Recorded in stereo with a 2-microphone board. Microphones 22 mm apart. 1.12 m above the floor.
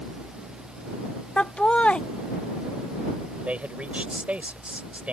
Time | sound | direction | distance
1.4 | laughter | 60° left (ahead or behind) | ?
3.5 | a man speaking | 80° right | ?